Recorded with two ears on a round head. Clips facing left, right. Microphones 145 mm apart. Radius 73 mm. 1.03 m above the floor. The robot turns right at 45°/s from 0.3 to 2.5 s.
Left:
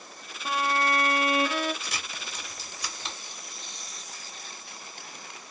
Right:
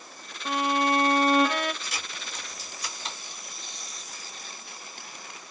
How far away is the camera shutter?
About 1.9 m.